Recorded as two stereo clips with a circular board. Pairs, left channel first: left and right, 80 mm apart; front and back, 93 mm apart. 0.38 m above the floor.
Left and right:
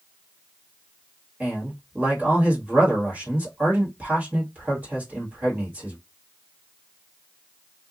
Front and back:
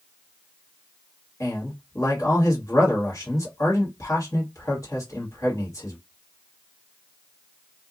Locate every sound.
1.4 s a man speaking: 30° right, 1.6 m